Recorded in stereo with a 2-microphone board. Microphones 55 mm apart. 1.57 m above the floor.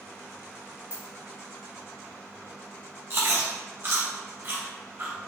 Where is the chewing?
45° right (ahead or behind), 1.0 m.